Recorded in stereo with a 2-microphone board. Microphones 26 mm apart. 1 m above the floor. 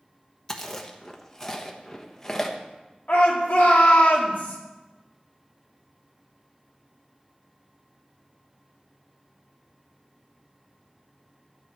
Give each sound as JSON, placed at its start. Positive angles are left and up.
{"t": 0.5, "sound": "chewing", "side_deg": 15, "distance_m": 1.1}
{"t": 3.1, "sound": "a shout", "side_deg": 70, "distance_m": 2.0}